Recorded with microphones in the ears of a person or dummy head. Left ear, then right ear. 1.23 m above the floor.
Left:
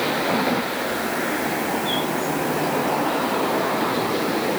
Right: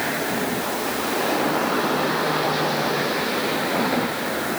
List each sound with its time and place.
Only background noise.